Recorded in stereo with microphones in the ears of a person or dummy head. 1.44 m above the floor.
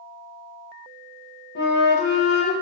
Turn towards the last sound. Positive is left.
turn(degrees=55)  # may be behind; listen again after turning